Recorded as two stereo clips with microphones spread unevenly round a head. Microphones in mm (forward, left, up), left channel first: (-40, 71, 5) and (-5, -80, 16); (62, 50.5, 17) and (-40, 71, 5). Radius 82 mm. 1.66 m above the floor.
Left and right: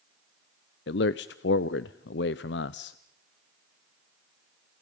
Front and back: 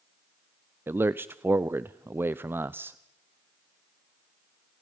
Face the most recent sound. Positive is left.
turn(degrees=95)